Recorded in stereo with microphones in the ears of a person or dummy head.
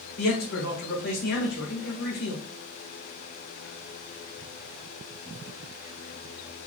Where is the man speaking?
70° left (ahead or behind), 1.3 m.